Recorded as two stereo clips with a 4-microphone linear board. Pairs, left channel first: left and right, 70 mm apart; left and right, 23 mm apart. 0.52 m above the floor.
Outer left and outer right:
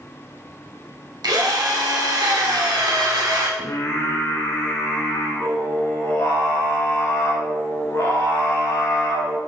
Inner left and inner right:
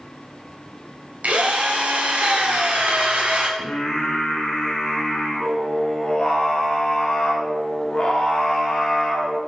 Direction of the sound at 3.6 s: 40° left (ahead or behind).